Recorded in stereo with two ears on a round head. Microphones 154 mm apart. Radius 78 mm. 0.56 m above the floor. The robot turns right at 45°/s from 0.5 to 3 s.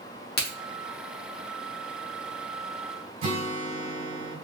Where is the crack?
60° left (ahead or behind), 1.4 m.